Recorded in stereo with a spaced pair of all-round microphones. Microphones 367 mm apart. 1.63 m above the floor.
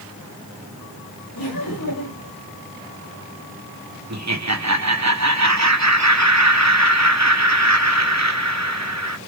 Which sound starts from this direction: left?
Laughter, at 1.4 s.